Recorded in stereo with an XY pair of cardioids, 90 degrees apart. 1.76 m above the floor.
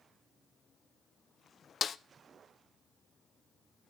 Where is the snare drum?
55° left, 0.5 m.